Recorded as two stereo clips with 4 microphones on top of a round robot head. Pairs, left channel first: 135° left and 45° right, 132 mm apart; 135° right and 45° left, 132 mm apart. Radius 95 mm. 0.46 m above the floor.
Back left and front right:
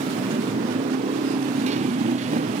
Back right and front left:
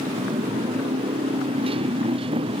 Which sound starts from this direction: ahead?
A motorcycle, at 0.0 s.